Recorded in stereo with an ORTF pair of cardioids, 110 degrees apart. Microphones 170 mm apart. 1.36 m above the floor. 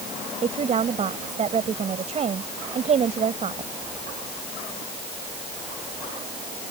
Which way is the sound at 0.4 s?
40° right.